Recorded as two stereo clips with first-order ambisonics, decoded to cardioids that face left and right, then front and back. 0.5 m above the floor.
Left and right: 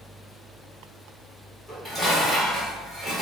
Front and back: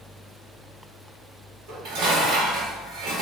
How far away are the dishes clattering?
About 1.4 m.